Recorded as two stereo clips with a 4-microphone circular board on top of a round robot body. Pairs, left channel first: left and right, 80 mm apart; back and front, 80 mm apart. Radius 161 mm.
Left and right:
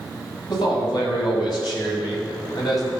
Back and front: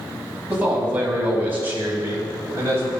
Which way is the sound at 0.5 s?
70° left.